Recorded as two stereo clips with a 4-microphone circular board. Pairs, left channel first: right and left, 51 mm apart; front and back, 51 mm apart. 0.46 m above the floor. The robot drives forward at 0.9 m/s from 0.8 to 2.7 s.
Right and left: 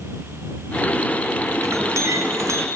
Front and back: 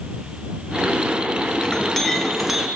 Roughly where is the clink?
Left.